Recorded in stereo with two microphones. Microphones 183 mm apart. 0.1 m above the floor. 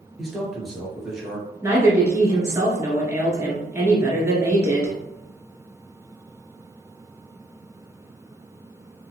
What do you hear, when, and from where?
0.2 s a man speaking: centre (ahead or behind), 1.8 m
1.6 s a woman speaking: 15° right (ahead or behind), 1.5 m